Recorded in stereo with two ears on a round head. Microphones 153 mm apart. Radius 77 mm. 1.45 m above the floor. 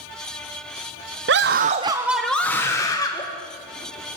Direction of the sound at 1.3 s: 70° right (ahead or behind).